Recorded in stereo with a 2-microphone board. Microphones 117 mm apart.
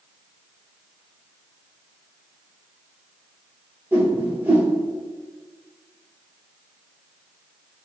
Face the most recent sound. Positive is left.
turn(degrees=-15)  # may be behind; listen again after turning